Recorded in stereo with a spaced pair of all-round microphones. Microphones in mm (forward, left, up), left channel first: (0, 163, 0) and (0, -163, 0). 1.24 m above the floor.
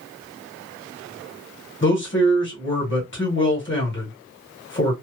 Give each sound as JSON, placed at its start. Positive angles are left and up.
{"t": 1.8, "sound": "a man speaking", "side_deg": 35, "distance_m": 1.4}